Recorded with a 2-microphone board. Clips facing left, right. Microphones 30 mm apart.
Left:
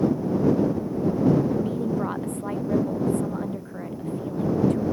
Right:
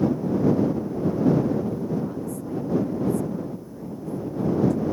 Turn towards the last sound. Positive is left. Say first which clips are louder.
# left 1 dB
turn(degrees=55)  # may be behind; listen again after turning